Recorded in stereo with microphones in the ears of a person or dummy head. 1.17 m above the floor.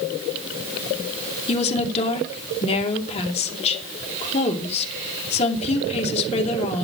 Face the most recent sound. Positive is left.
turn(degrees=35)  # may be behind; listen again after turning